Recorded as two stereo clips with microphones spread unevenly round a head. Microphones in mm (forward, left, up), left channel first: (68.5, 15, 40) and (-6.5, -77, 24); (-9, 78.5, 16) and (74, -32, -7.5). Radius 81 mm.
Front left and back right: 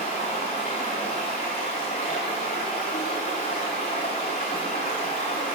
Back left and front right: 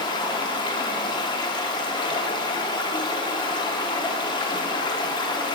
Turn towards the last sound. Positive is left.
turn(degrees=85)